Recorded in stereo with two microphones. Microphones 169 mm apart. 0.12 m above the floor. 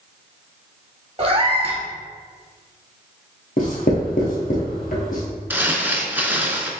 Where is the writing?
60° left (ahead or behind), 1.2 m.